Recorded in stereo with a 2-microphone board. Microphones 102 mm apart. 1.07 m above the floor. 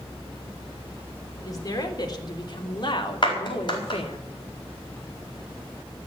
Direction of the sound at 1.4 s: 35° left (ahead or behind).